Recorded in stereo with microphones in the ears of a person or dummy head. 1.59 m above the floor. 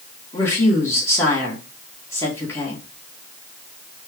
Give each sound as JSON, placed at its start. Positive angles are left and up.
{"t": 0.3, "sound": "a woman speaking", "side_deg": 20, "distance_m": 1.4}